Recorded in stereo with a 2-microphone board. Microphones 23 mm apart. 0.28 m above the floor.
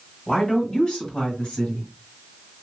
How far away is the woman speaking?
About 2 m.